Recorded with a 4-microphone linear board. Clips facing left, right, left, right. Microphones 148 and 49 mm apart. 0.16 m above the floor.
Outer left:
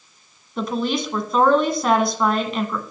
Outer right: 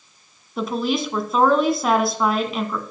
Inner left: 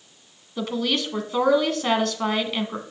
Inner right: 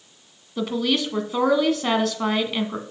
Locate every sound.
0.6 s a woman speaking: centre (ahead or behind), 1.2 m